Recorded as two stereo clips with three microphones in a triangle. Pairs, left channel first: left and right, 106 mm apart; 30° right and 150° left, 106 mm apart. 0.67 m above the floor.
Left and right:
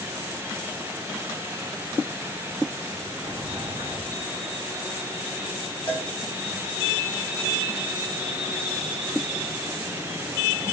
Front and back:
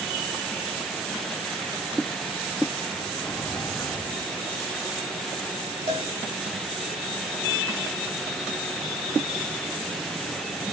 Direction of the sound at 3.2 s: 115° right.